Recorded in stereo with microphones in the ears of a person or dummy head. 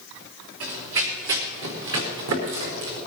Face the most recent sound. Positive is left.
turn(degrees=-70)  # may be behind; listen again after turning